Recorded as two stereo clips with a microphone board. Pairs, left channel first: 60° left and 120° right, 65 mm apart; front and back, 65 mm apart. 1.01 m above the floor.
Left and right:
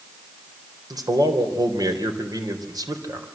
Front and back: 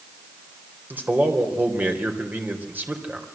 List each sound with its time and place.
0.9 s a man speaking: 120° right, 4 m